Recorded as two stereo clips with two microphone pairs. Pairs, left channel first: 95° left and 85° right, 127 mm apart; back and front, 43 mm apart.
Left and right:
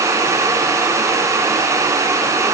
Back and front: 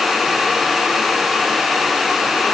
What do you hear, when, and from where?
Only background noise.